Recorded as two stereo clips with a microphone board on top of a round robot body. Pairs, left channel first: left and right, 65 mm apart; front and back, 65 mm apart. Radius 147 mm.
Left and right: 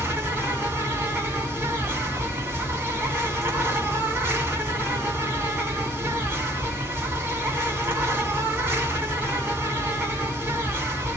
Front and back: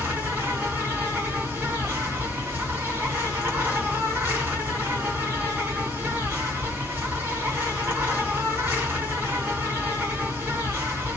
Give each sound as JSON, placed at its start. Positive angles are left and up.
{"t": 0.0, "sound": "an insect", "azimuth_deg": -135, "distance_m": 2.5}